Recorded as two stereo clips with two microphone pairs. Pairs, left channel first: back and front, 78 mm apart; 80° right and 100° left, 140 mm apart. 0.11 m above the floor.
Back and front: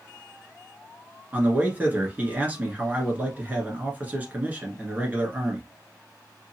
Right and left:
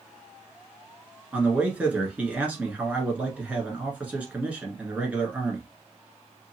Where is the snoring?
I don't hear snoring.